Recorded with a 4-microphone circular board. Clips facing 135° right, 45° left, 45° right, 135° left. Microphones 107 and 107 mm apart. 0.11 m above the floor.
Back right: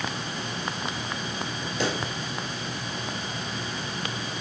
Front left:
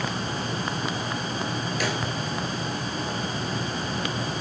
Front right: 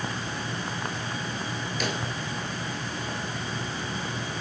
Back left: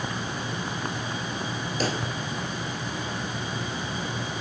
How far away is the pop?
About 2 m.